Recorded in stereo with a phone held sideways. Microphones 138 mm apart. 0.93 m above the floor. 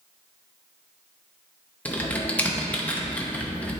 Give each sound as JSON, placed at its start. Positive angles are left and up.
{"t": 1.9, "sound": "typing on a keyboard", "side_deg": 10, "distance_m": 0.8}